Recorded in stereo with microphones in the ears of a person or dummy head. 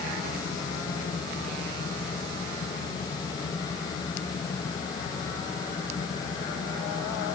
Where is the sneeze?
I don't hear a sneeze.